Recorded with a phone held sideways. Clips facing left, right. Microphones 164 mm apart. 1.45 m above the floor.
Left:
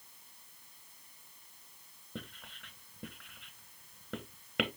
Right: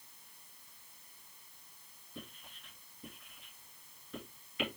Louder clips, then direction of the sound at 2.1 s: Left 4 dB; 75° left (ahead or behind).